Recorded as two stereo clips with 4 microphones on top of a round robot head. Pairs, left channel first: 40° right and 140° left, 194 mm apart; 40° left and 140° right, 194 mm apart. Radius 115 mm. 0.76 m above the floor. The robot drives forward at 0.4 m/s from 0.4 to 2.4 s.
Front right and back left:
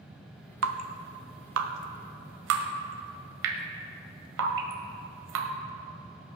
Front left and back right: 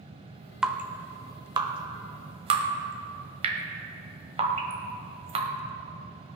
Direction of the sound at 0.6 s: 135° left.